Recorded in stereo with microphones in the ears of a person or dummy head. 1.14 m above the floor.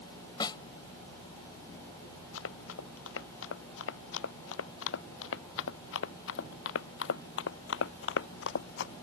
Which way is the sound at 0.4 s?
20° left (ahead or behind).